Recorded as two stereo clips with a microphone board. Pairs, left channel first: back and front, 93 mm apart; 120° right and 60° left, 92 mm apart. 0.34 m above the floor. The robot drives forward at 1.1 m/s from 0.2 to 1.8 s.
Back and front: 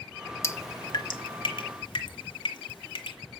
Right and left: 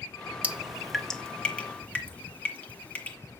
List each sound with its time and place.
0.4 s dripping: 130° left, 0.9 m; by 3.2 s 165° left, 2 m